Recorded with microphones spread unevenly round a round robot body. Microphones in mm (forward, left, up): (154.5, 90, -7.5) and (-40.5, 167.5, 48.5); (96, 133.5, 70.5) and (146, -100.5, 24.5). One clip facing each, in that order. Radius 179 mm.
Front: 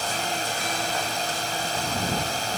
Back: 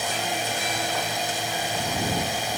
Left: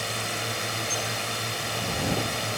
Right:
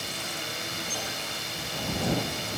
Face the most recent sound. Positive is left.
turn(degrees=80)